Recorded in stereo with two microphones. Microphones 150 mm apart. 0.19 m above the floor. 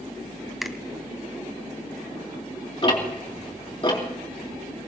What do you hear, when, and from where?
0.6 s a finger snap: centre (ahead or behind), 1.0 m
2.8 s ticking: 35° left (ahead or behind), 3 m